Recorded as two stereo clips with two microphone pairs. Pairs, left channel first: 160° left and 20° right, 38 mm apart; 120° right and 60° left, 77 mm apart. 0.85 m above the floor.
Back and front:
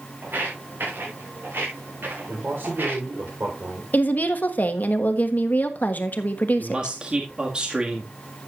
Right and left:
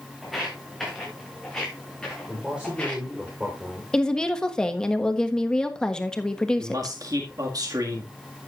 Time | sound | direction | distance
0.2 | footsteps | 30° right | 5 m
2.3 | a man speaking | 15° right | 3.5 m
3.9 | a woman speaking | 160° left | 1.3 m
6.6 | a man speaking | 35° left | 1.8 m